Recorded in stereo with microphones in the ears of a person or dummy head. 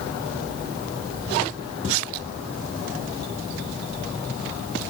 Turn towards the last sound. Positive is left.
No sound to turn to.